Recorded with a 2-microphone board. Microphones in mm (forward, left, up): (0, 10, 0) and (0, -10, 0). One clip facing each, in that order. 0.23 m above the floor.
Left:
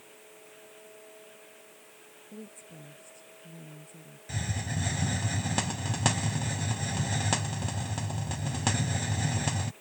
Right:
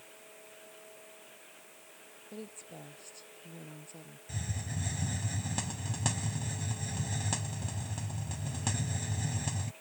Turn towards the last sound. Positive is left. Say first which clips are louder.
# left 6 dB
turn(degrees=30)  # may be behind; listen again after turning